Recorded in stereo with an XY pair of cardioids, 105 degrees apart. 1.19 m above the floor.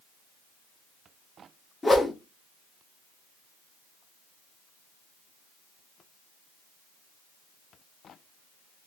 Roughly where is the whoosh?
Ahead.